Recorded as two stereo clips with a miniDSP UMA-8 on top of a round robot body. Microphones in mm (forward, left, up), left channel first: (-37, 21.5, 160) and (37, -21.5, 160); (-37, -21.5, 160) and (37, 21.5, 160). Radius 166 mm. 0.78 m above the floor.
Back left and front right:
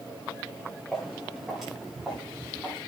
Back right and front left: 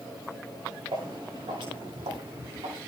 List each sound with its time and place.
0.9 s footsteps: 60° left, 10 m; by 2.8 s 45° left, 8.5 m